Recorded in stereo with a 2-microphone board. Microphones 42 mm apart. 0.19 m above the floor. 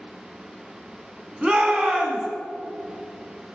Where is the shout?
20° right (ahead or behind), 1.4 m.